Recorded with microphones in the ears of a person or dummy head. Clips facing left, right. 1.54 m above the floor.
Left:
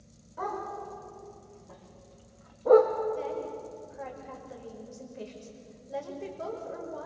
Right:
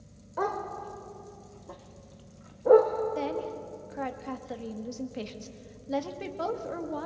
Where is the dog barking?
70° right (ahead or behind), 2.5 m; by 2.9 s 10° left (ahead or behind), 0.9 m.